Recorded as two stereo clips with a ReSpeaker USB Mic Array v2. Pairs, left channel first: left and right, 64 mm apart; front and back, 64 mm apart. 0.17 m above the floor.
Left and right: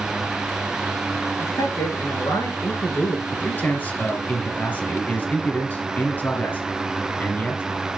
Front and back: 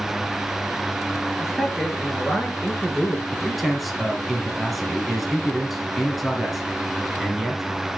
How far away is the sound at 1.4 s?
About 3.5 m.